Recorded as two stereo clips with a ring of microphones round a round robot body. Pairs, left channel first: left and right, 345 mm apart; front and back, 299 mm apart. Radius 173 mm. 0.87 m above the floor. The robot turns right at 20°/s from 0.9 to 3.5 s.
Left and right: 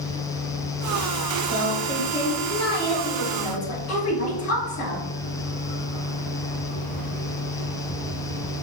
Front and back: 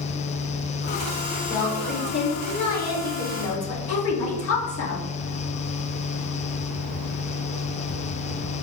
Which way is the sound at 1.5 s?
Straight ahead.